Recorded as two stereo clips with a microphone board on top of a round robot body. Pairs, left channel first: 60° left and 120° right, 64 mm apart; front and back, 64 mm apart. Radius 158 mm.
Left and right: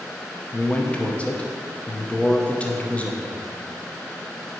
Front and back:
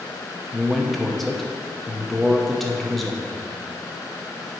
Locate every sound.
0.5 s a man speaking: 85° left, 1.0 m